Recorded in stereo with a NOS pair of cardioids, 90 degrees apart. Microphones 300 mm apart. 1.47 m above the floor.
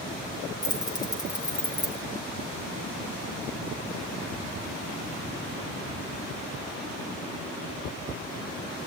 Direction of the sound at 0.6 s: 15° left.